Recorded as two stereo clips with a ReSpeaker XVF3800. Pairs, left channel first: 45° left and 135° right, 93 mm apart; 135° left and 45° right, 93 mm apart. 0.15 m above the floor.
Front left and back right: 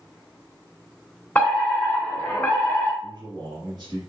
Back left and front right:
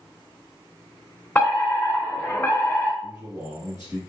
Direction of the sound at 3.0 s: 100° right.